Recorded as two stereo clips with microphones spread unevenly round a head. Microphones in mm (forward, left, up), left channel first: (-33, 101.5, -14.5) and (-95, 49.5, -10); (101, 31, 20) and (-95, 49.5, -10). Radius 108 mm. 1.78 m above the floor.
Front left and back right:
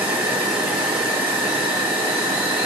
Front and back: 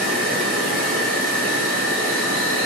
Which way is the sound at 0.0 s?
130° right.